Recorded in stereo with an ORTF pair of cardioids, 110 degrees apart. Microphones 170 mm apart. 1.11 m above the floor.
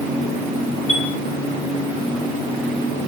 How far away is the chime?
About 2.5 m.